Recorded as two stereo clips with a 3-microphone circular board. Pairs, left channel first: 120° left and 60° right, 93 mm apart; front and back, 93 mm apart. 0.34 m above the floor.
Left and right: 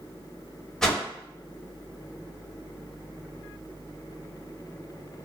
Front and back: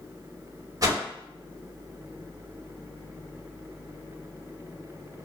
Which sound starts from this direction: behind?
A whoosh, at 0.8 s.